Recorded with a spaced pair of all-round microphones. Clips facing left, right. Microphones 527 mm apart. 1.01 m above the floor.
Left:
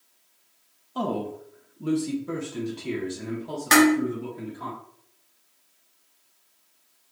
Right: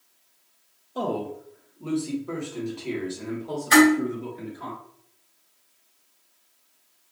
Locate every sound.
0.9 s a man speaking: 20° left (ahead or behind), 0.9 m; by 4.7 s 30° left (ahead or behind), 2 m
3.7 s dishes clattering: 85° left, 1.6 m